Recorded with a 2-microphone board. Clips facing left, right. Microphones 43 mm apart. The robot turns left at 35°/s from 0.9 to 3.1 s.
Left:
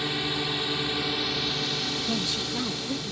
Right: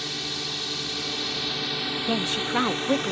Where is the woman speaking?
40° right (ahead or behind); by 3.1 s 75° right (ahead or behind).